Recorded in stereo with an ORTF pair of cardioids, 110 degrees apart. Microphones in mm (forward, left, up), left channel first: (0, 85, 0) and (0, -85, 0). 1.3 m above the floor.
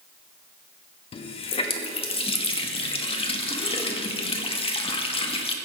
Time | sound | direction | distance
1.1 | a running tap | 35° left | 1.3 m